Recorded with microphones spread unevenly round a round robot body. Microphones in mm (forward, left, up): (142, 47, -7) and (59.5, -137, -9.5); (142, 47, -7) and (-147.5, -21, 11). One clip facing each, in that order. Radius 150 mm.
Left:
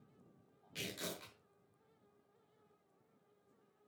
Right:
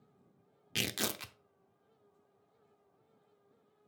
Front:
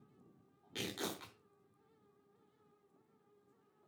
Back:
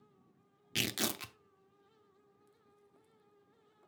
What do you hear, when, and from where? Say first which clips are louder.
0.8 s tearing paper: right 7 dB, back 4 dB; 125° right, 0.8 m